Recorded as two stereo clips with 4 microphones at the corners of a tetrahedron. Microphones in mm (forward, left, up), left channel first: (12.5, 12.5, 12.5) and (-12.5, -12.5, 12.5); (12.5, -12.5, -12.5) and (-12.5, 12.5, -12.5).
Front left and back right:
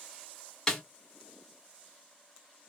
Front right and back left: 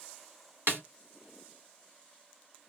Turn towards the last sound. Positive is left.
turn(degrees=120)